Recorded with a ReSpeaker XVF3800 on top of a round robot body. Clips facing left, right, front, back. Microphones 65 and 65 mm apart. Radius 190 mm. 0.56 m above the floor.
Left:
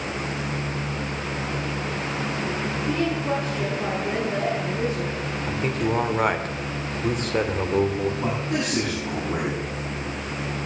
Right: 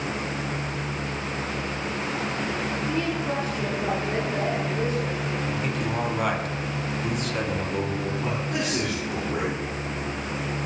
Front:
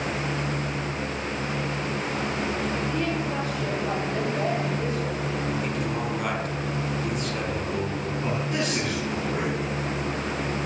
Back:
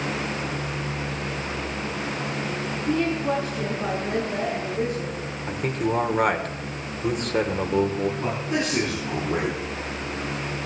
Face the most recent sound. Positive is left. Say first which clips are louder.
# left 2 dB, back 1 dB
turn(degrees=110)